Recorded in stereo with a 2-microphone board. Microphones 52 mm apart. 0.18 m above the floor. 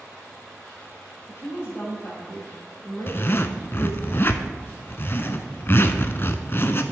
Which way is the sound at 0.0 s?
10° left (ahead or behind).